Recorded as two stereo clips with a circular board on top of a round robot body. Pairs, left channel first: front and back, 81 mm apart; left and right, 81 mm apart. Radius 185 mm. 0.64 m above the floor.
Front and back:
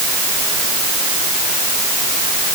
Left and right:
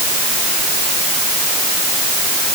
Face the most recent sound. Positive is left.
No sound to turn to.